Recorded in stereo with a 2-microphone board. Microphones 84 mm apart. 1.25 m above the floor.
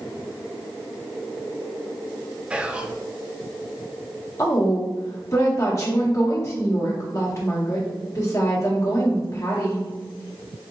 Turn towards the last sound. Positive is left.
turn(degrees=40)  # may be behind; listen again after turning